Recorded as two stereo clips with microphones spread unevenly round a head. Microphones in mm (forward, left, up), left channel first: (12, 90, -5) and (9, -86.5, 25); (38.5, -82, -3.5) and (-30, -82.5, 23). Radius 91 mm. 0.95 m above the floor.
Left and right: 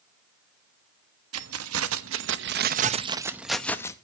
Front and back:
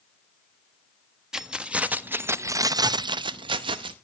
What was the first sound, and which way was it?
Keys jangling, 95° right.